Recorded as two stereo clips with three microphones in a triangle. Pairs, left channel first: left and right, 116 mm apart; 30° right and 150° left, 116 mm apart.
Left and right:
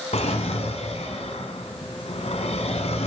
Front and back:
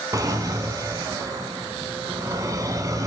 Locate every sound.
0.1 s a drawer: 95° left, 1.4 m